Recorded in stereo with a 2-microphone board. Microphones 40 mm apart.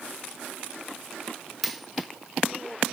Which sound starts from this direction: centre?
A dropped coin, at 1.6 s.